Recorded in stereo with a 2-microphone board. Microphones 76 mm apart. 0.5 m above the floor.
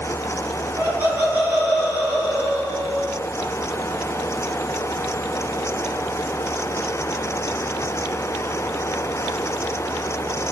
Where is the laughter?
50° right (ahead or behind), 3 m.